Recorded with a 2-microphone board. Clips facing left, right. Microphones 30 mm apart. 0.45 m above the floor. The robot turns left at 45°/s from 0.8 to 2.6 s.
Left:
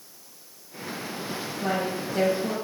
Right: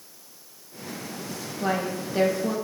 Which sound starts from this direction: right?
A woman speaking, at 1.6 s.